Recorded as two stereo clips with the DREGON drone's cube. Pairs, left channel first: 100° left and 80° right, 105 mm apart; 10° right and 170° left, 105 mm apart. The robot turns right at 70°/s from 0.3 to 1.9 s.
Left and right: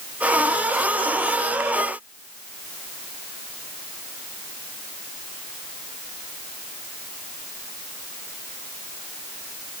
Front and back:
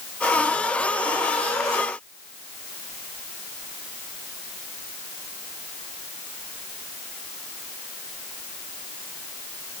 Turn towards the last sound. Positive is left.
No sound to turn to.